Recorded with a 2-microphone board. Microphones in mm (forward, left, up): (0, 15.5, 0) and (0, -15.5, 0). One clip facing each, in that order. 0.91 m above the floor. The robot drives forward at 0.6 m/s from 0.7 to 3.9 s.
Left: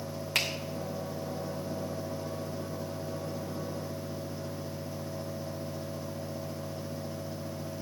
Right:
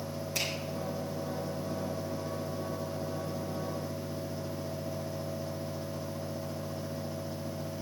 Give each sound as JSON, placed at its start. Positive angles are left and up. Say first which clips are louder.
{"t": 0.3, "sound": "a finger snap", "louder": "left 5 dB", "side_deg": 70, "distance_m": 2.5}